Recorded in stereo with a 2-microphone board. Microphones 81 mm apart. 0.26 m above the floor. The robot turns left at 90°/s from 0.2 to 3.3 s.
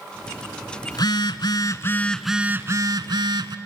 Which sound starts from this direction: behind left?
A phone buzzing, at 0.9 s.